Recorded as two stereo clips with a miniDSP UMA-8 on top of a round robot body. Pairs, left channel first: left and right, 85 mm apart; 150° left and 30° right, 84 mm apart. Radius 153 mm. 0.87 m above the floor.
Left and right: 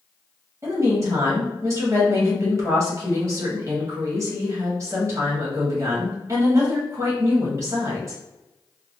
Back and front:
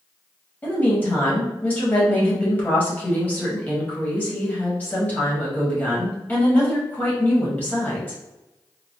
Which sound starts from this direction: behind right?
A woman speaking, at 0.6 s.